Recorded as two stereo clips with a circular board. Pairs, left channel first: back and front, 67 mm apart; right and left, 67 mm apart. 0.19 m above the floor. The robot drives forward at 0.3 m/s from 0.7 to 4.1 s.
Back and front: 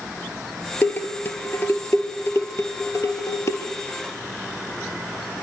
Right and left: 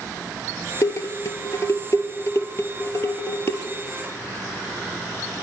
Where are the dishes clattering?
125° right, 2 m; by 3.6 s 140° right, 2.5 m.